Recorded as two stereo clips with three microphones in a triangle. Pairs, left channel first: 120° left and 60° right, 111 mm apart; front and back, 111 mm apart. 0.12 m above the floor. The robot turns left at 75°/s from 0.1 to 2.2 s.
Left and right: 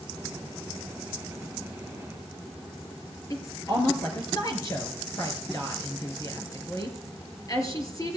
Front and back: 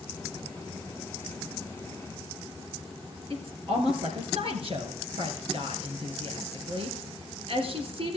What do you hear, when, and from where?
3.3 s a woman speaking: 170° left, 3 m